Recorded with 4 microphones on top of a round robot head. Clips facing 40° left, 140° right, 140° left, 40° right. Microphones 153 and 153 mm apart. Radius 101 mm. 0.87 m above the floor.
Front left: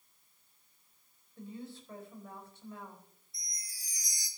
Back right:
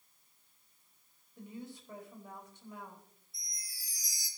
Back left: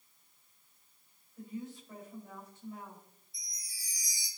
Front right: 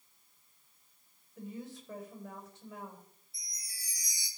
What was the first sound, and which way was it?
A woman speaking, 65° right.